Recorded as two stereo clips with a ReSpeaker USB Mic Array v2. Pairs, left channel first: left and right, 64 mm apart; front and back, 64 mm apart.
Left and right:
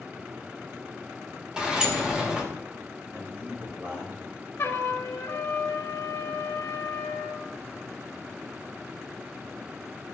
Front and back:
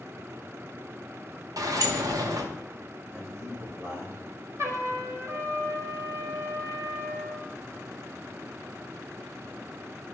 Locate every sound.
1.6 s a sliding door: 165° right, 1.1 m
3.1 s a man speaking: 135° right, 3.5 m
4.6 s a trumpet: 140° left, 1.5 m